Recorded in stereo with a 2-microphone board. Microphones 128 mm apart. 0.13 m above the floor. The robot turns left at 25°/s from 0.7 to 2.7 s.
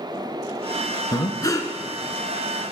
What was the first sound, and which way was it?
Breathing, 30° left (ahead or behind).